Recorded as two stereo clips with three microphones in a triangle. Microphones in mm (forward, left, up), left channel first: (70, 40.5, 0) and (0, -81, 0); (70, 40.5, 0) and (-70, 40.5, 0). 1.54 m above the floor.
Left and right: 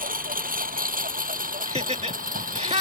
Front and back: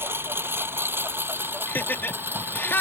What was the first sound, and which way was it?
A lawn mower, 105° right.